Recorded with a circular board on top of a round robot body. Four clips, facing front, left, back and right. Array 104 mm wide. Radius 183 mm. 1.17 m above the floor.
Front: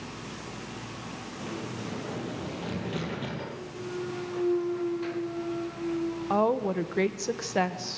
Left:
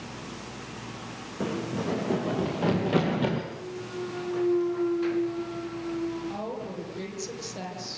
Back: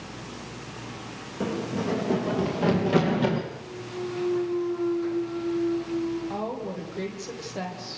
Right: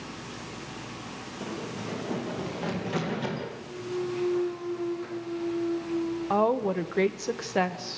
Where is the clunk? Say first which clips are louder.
Right 2 dB, even; 50° left, 8 m.